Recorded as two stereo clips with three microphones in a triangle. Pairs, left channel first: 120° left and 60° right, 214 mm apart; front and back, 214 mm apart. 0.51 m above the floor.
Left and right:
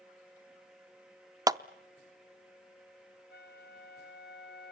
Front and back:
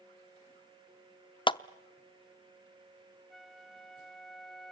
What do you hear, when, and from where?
1.5 s a clap: 15° right, 0.5 m
3.3 s a flute: 90° left, 1.9 m